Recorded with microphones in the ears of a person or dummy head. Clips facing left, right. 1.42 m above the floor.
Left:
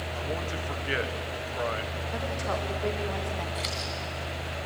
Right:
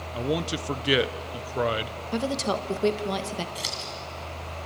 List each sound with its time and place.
0.1 s a man speaking: 50° right (ahead or behind), 1.0 m
2.1 s a woman speaking: 50° right (ahead or behind), 1.5 m
3.5 s scissors: 15° right (ahead or behind), 3.5 m